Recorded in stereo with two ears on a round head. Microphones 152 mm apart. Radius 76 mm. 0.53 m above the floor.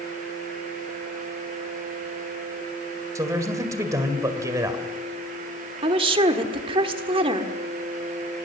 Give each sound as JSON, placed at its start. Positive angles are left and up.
{"t": 3.1, "sound": "a man speaking", "side_deg": -20, "distance_m": 2.0}
{"t": 5.8, "sound": "a woman speaking", "side_deg": -30, "distance_m": 1.5}